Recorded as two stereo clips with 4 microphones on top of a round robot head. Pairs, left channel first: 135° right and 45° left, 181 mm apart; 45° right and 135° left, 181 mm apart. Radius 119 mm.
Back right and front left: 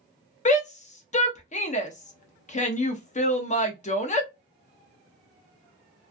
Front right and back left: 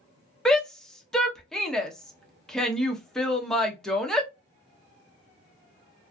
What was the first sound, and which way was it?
A shout, 130° right.